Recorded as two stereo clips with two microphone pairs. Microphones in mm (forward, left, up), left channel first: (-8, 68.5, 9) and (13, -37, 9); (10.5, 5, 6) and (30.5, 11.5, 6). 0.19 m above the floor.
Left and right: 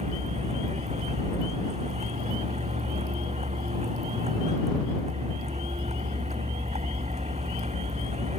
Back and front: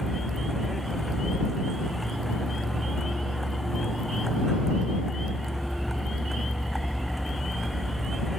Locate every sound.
0.0 s a vehicle: 75° right